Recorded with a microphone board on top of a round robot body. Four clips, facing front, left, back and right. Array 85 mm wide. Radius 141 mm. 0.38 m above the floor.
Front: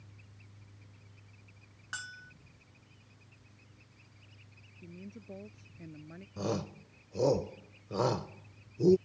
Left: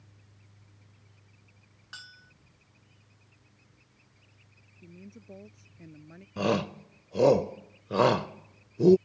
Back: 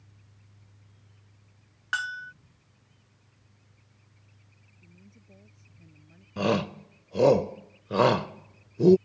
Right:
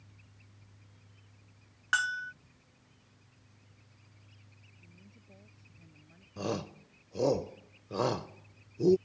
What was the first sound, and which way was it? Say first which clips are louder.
A bell: right 20 dB, back 13 dB; 130° right.